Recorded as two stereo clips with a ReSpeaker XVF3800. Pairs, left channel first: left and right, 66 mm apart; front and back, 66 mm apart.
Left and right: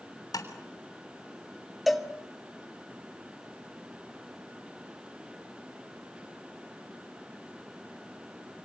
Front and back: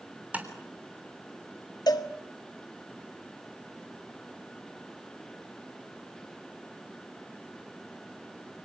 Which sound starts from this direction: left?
Tapping, at 0.3 s.